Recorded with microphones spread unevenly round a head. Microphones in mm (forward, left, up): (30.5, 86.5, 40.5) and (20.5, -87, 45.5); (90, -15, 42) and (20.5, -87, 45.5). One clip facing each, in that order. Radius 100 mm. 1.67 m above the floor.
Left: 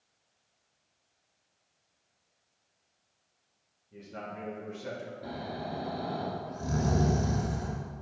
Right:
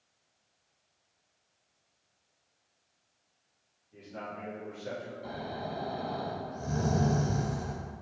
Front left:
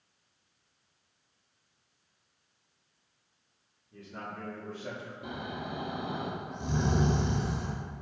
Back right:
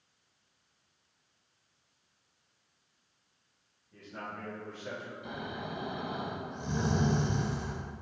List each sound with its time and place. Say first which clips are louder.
3.9 s a man speaking: even, front left 1 dB; 130° left, 2.5 m; by 5.1 s 85° left, 1.8 m
5.2 s snoring: left 2 dB, front left 3 dB; 60° left, 1.5 m